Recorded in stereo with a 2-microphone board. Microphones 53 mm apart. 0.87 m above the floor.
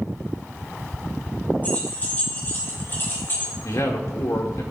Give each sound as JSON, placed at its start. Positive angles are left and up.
{"t": 1.6, "sound": "keys jangling", "side_deg": 30, "distance_m": 4.5}
{"t": 3.6, "sound": "a man speaking", "side_deg": 75, "distance_m": 2.5}